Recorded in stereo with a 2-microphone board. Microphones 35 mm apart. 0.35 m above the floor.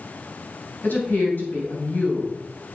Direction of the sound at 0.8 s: 60° left (ahead or behind).